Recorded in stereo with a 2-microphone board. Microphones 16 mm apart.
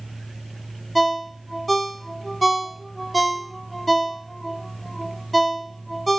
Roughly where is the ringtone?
Centre.